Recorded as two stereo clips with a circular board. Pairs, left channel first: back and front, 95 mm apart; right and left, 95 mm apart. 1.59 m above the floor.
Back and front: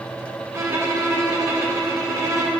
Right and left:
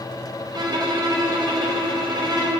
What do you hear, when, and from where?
0.5 s a violin: 55° left, 1.0 m